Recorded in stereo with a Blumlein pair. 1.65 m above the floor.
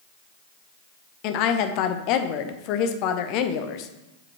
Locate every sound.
1.2 s a woman speaking: 40° left, 0.7 m